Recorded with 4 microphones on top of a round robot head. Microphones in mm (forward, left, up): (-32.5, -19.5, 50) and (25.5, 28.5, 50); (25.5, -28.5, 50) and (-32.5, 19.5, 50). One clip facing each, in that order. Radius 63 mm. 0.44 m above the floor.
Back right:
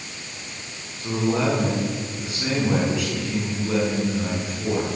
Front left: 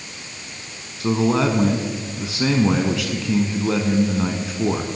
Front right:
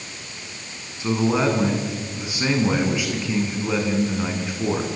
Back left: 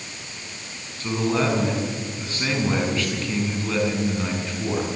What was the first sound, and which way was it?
A man speaking, 40° left.